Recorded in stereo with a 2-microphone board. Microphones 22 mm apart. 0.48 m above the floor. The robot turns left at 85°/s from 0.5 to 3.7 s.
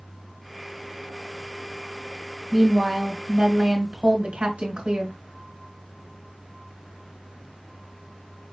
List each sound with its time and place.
2.5 s a woman speaking: 5° right, 2 m; by 5.2 s 110° right, 2 m